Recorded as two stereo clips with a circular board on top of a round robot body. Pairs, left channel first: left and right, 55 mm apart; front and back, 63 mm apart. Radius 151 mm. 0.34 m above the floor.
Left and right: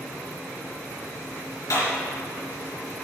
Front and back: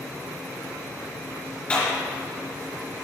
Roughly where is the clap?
Left.